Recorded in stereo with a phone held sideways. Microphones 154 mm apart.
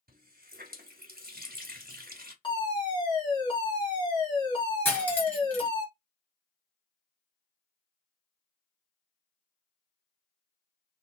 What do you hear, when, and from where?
0.1 s a running tap: 75° right (ahead or behind), 0.9 m
2.4 s a fire alarm: 30° left (ahead or behind), 1.4 m
4.8 s cutlery clinking: 10° left (ahead or behind), 1.0 m